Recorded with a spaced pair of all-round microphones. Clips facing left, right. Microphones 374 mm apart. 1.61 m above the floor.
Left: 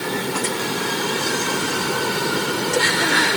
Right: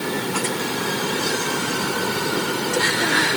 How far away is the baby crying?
I don't hear a baby crying.